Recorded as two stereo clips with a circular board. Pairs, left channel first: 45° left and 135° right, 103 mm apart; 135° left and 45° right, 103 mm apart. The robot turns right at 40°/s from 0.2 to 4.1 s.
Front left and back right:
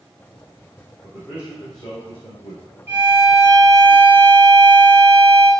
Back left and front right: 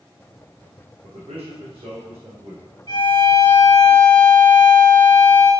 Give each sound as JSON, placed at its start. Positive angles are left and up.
{"t": 1.0, "sound": "a man speaking", "azimuth_deg": -35, "distance_m": 3.5}
{"t": 2.9, "sound": "a violin", "azimuth_deg": 165, "distance_m": 1.6}